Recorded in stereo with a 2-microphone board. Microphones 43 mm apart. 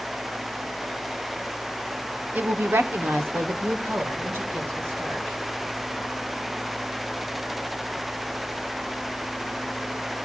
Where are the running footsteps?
I don't hear running footsteps.